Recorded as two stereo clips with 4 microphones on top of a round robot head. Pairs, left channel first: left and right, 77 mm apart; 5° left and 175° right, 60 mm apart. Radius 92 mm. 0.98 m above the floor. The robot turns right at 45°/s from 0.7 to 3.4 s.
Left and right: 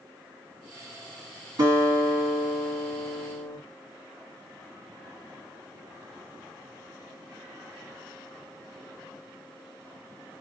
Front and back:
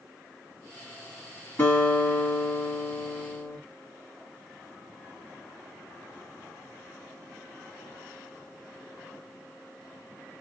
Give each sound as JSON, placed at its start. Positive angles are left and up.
{"t": 1.6, "sound": "a guitar", "azimuth_deg": -55, "distance_m": 3.0}